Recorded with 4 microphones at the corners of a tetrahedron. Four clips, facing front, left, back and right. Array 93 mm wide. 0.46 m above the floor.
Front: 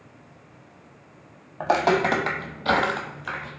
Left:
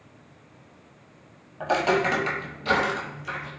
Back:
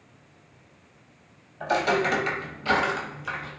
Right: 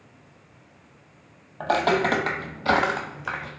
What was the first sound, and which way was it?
Footsteps, 15° right.